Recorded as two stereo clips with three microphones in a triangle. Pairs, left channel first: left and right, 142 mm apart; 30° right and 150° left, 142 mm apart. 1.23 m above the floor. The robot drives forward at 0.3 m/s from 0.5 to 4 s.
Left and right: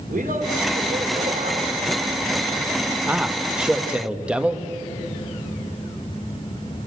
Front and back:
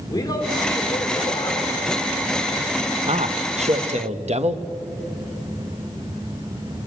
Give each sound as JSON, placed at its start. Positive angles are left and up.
{"t": 0.1, "sound": "a man speaking", "azimuth_deg": -90, "distance_m": 5.0}
{"t": 3.1, "sound": "a man speaking", "azimuth_deg": -170, "distance_m": 1.1}